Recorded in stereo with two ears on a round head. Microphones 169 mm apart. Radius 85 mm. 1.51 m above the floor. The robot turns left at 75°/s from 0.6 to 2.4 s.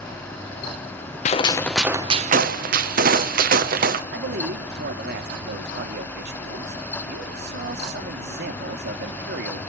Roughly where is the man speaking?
Right.